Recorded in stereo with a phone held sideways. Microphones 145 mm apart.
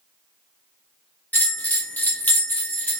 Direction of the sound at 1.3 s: 10° left (ahead or behind).